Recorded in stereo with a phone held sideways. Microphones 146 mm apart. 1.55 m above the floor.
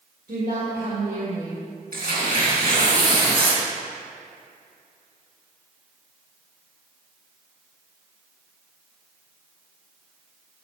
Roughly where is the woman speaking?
Right.